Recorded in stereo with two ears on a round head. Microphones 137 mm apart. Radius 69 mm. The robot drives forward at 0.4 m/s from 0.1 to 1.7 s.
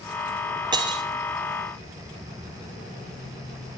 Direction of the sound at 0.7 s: 30° right (ahead or behind).